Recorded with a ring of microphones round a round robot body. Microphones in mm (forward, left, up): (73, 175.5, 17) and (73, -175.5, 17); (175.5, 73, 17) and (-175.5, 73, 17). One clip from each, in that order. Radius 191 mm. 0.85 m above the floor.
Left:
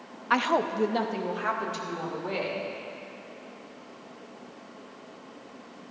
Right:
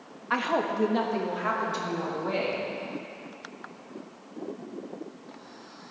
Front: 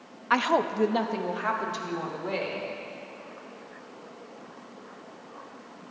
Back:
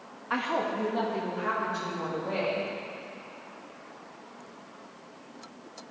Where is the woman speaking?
35° left, 0.5 m; by 2.7 s 15° left, 3 m.